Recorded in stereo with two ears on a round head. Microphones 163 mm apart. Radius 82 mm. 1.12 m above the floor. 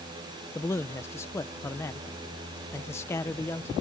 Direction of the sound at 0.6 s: 15° left (ahead or behind).